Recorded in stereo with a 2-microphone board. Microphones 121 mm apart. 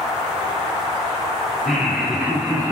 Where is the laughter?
5° right (ahead or behind), 3.5 m; by 2.7 s 15° right (ahead or behind), 2.5 m.